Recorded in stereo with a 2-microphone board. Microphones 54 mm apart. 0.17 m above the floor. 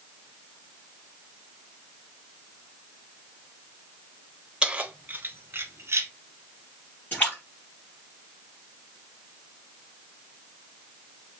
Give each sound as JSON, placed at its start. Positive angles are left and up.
{"t": 4.6, "sound": "keys jangling", "side_deg": -15, "distance_m": 0.7}
{"t": 7.1, "sound": "a splash", "side_deg": 35, "distance_m": 3.5}